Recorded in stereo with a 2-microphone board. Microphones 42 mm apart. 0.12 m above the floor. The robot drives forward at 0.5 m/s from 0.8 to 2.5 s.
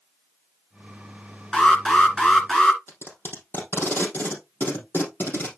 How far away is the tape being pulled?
About 3.5 m.